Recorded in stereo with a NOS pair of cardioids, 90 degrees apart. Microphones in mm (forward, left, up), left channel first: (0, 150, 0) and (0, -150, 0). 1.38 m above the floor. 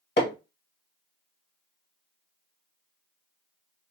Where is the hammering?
35° left, 1.5 m.